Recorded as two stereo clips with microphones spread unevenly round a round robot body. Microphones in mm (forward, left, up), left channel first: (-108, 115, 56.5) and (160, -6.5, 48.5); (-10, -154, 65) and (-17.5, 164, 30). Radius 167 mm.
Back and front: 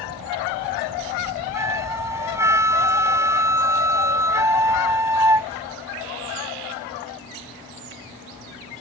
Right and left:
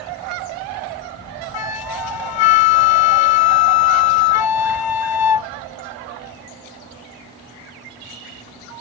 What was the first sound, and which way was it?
A flute, 105° right.